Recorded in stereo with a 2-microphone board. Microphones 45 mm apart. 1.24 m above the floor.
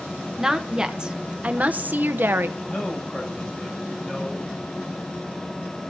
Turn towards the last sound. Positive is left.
turn(degrees=15)  # may be behind; listen again after turning